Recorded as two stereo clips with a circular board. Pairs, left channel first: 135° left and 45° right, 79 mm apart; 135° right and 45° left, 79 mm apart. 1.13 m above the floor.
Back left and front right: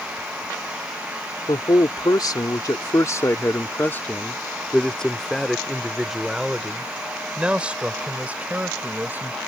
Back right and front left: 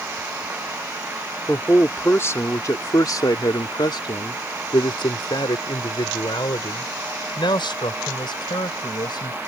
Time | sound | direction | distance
1.5 | a man speaking | 160° left | ?